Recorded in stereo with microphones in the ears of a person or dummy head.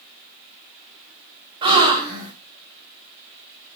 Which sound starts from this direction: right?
A gasp, at 1.6 s.